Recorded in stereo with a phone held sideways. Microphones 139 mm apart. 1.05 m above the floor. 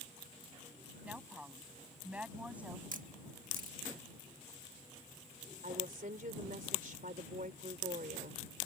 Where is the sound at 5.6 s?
85° right.